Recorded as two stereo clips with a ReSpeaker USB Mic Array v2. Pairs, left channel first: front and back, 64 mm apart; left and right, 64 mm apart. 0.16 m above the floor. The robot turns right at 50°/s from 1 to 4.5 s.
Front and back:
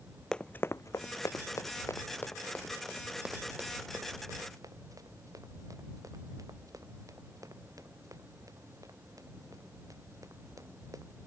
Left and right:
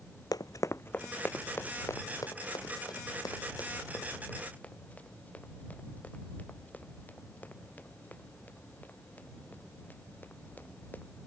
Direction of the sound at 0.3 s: 80° left.